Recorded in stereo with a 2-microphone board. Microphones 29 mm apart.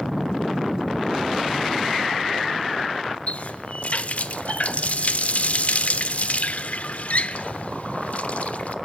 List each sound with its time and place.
3.3 s a running tap: 50° left (ahead or behind), 0.8 m